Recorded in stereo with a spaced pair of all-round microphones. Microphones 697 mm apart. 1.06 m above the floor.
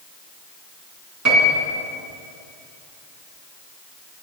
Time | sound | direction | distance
1.2 | a piano | 25° right (ahead or behind) | 3 m